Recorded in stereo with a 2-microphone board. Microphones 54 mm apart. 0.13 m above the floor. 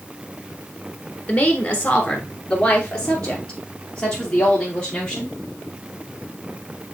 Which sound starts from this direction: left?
A woman speaking, at 1.3 s.